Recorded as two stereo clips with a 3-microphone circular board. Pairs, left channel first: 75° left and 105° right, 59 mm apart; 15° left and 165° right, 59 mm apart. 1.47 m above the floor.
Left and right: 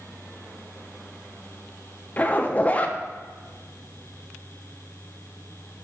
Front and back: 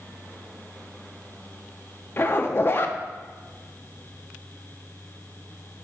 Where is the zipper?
25° left, 0.5 m.